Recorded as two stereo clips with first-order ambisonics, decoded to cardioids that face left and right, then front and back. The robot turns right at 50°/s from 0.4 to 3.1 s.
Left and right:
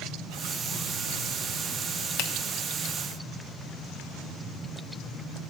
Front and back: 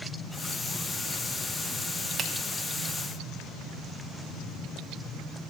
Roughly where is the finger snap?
Behind left.